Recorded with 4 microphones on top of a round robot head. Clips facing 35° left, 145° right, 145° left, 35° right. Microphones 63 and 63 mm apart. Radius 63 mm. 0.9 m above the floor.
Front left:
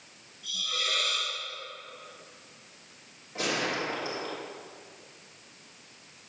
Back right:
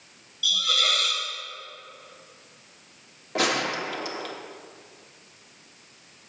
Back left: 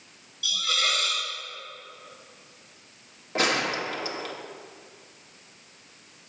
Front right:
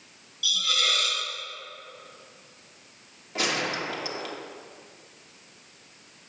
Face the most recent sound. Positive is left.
turn(degrees=-165)